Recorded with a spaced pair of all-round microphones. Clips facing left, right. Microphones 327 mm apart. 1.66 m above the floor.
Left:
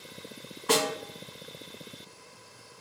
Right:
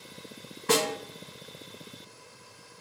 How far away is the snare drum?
About 1.1 m.